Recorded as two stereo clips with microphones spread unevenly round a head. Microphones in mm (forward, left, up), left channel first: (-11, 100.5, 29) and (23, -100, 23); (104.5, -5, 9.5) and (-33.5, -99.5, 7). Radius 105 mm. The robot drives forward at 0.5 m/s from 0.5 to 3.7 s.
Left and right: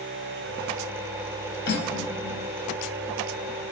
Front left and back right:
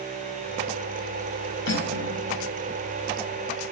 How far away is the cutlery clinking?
About 4 m.